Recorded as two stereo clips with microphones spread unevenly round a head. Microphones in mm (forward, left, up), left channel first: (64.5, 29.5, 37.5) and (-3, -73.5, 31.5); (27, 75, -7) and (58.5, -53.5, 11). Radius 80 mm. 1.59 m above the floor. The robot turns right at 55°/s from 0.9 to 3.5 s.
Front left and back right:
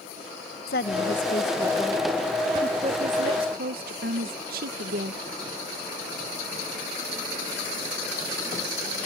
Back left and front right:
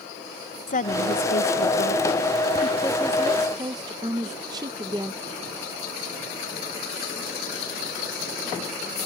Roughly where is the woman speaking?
Left.